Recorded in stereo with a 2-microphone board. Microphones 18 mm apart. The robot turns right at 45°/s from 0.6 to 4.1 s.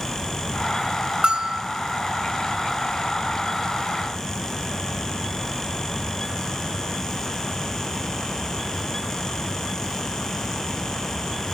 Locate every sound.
1.2 s a bell: 70° right (ahead or behind), 2 m; by 1.6 s 75° right (ahead or behind), 2 m